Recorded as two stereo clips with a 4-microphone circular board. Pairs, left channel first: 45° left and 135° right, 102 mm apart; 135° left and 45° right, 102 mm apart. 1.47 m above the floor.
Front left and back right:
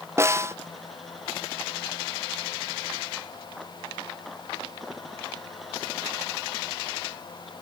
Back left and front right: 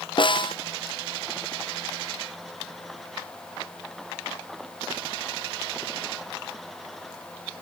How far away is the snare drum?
About 0.6 m.